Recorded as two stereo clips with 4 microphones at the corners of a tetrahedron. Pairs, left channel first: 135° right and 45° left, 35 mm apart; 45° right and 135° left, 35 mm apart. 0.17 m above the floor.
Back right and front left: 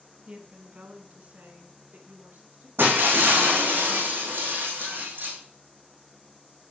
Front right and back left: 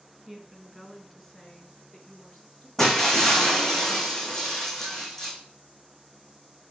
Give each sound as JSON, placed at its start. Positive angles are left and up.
{"t": 0.3, "sound": "a woman speaking", "azimuth_deg": 70, "distance_m": 1.1}
{"t": 2.8, "sound": "breaking glass", "azimuth_deg": 35, "distance_m": 3.0}